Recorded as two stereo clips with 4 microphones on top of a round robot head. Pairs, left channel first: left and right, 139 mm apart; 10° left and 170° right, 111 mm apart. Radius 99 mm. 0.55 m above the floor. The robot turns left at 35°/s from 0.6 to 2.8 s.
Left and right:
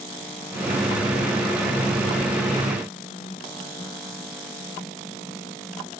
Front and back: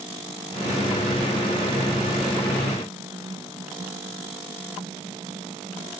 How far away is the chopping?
I don't hear chopping.